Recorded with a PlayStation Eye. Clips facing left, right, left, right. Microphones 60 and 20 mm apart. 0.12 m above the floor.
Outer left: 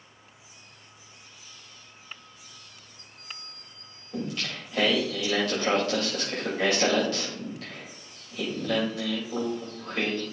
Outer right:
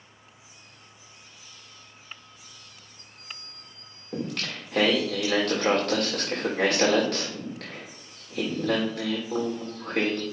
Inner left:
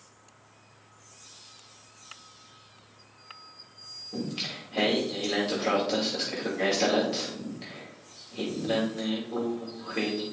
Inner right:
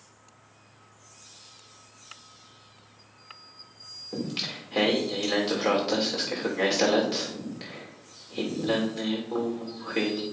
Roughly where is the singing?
Right.